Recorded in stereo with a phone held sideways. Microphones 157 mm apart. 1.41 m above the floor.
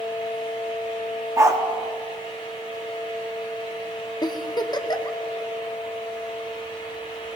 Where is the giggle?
30° left (ahead or behind), 0.7 m.